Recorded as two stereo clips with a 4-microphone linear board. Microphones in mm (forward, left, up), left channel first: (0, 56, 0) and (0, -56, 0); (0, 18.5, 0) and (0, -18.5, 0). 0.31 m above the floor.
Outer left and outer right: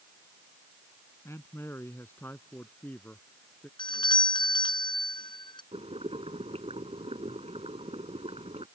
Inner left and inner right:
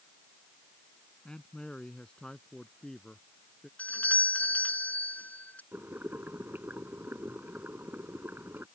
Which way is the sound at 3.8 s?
45° left (ahead or behind).